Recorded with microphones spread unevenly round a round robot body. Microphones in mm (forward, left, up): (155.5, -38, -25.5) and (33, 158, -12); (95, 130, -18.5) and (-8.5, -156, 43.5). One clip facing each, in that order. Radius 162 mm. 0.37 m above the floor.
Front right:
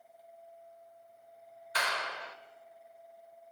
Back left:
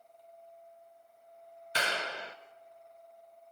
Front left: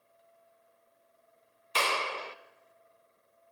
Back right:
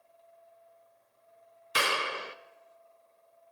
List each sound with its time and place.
1.8 s a clap: 170° left, 0.8 m